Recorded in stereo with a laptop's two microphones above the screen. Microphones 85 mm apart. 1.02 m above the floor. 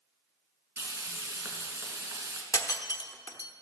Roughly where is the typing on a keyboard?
I don't hear typing on a keyboard.